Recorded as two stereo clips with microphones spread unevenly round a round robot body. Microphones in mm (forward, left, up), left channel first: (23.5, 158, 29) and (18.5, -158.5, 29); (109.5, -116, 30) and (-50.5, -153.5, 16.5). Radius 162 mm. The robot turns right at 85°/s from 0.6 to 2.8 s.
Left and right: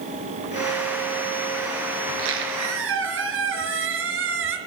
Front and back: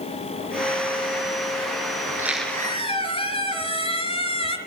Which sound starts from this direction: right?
A squeak, at 2.1 s.